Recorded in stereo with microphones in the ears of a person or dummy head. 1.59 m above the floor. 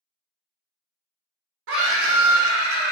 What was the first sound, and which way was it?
A scream, 60° right (ahead or behind).